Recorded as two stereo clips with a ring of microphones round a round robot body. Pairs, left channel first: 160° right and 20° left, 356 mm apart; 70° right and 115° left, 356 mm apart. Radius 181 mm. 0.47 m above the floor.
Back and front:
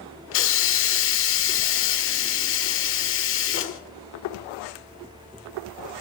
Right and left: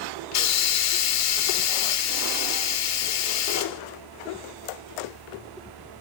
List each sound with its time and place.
0.3 s a hiss: 105° right, 1.1 m